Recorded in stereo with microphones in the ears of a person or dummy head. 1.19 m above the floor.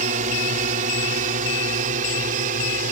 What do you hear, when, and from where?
0.0 s a drone: 45° right (ahead or behind); by 2.9 s 50° right (ahead or behind)